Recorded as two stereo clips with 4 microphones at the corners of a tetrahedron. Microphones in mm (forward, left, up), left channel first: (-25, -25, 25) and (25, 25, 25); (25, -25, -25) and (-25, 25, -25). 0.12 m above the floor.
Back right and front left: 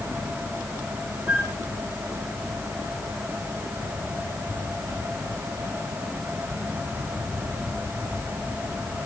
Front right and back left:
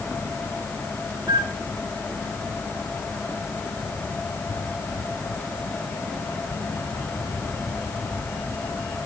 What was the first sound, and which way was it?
A flute, 110° left.